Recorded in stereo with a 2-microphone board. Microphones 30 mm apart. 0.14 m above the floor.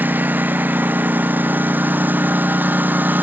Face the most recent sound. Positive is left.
turn(degrees=-90)